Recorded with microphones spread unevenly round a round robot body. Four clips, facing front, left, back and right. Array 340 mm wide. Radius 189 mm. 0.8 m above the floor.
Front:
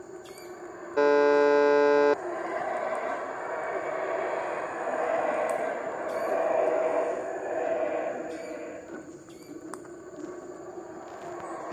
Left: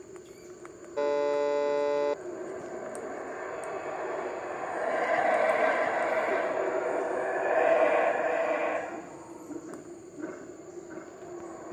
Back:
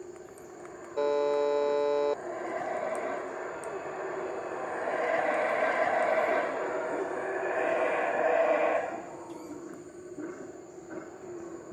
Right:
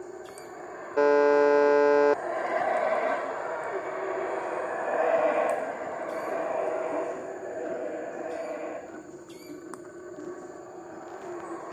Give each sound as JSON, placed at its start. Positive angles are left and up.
{"t": 1.0, "sound": "a buzzer", "azimuth_deg": -40}